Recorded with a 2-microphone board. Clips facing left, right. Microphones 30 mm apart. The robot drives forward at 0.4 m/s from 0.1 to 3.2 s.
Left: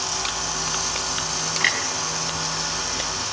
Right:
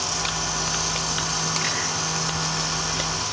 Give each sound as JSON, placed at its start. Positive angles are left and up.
{"t": 1.6, "sound": "a clunk", "side_deg": 55, "distance_m": 5.5}